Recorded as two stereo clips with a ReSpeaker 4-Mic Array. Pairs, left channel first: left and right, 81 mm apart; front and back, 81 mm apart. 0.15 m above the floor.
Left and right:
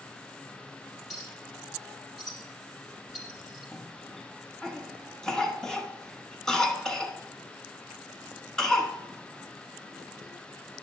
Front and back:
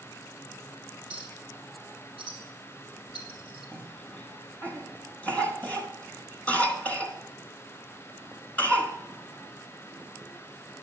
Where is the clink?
Straight ahead, 3.5 m.